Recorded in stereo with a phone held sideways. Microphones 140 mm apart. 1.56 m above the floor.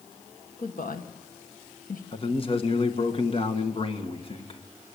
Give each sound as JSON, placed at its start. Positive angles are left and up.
{"t": 0.6, "sound": "a woman speaking", "side_deg": 75, "distance_m": 1.5}
{"t": 2.1, "sound": "a man speaking", "side_deg": 40, "distance_m": 1.7}